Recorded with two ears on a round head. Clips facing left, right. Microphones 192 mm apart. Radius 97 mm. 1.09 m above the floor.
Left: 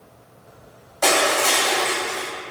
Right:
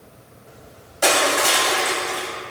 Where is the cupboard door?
I don't hear a cupboard door.